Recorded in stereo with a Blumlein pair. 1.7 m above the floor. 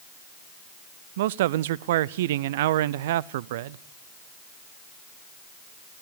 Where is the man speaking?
55° right, 0.6 m.